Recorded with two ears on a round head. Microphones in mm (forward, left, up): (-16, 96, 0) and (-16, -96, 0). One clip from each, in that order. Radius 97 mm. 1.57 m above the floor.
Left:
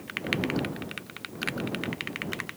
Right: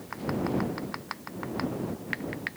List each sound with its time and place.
Only background noise.